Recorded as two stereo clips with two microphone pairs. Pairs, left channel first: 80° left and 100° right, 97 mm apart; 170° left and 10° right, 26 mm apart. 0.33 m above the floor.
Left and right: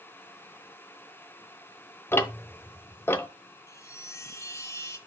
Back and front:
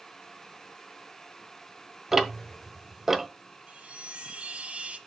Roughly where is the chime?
Ahead.